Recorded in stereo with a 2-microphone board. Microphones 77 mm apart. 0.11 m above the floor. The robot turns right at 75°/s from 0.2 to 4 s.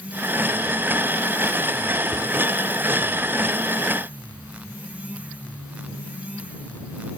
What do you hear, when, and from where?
2.1 s a cupboard door: 25° right (ahead or behind); by 2.3 s 40° right (ahead or behind)